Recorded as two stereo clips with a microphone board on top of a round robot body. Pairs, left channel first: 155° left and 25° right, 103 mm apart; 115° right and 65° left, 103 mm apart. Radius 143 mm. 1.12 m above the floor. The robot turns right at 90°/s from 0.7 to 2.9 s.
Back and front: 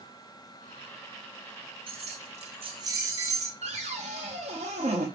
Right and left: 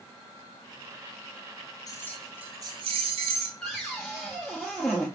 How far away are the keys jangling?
About 0.6 m.